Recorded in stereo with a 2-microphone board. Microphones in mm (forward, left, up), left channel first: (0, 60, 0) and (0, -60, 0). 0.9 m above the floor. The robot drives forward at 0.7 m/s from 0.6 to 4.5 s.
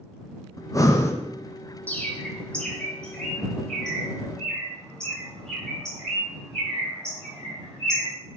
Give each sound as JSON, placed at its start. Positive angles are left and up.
{"t": 0.6, "sound": "breathing", "side_deg": 30, "distance_m": 0.5}
{"t": 1.9, "sound": "a bird", "side_deg": 15, "distance_m": 0.8}